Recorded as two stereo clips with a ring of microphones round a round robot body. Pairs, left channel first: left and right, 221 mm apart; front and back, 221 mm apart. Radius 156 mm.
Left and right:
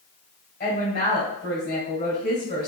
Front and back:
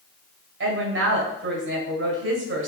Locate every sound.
0.6 s a woman speaking: 150° left, 2.5 m